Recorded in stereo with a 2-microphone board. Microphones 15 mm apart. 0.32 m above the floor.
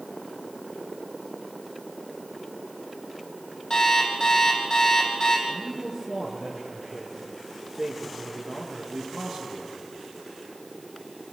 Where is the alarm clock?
45° left (ahead or behind), 7 m.